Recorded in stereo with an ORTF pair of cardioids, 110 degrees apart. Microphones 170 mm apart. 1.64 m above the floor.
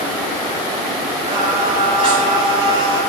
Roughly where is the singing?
Ahead right.